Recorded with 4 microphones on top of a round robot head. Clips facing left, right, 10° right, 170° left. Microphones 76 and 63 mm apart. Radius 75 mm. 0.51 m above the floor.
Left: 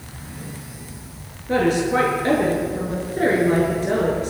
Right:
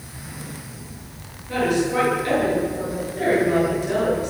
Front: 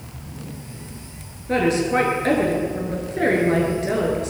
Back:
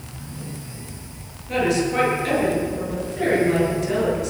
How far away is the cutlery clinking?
No cutlery clinking in this recording.